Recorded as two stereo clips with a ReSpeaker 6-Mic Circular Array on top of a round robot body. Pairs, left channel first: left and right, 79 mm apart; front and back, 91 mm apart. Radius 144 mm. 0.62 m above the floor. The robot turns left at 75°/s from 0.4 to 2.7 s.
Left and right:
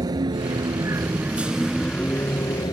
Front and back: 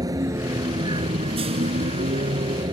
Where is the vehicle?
130° right; by 2.7 s 135° left.